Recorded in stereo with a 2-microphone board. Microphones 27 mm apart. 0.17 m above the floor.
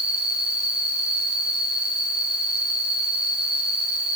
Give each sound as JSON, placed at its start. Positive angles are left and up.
{"t": 0.0, "sound": "an insect", "side_deg": -40, "distance_m": 8.0}